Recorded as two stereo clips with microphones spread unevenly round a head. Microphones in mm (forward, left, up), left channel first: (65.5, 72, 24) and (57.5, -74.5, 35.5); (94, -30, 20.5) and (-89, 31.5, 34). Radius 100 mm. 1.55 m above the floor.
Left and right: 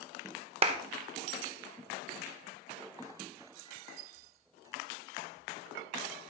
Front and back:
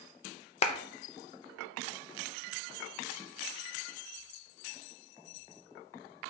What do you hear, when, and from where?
0.6 s a clap: 75° right, 0.8 m